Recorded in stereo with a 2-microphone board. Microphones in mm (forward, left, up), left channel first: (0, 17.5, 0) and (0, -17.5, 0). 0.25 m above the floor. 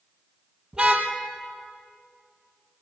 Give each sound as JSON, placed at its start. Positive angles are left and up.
{"t": 0.7, "sound": "a car horn", "side_deg": -25, "distance_m": 4.0}